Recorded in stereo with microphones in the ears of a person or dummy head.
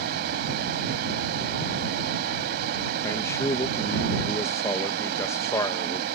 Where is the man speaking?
20° left (ahead or behind).